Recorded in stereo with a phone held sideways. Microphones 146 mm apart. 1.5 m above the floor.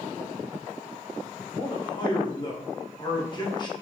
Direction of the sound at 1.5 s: 30° left (ahead or behind).